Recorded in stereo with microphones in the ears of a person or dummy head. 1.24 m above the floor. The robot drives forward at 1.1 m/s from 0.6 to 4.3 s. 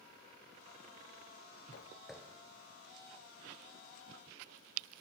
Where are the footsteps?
25° left (ahead or behind), 1.3 m; by 5.0 s 50° right (ahead or behind), 5 m.